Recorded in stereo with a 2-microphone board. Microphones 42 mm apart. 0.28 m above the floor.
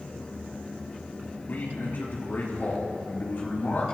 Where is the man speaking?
55° left (ahead or behind), 4 m.